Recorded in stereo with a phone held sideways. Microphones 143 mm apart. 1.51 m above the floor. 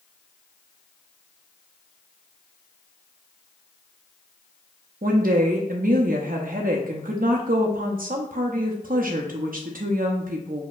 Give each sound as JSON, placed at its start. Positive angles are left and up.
{"t": 5.0, "sound": "a woman speaking", "side_deg": -80, "distance_m": 0.5}